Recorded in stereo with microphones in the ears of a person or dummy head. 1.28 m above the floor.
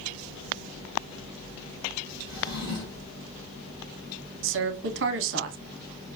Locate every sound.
2.3 s a drawer: 45° left (ahead or behind), 2 m
4.4 s a woman speaking: 65° right (ahead or behind), 0.7 m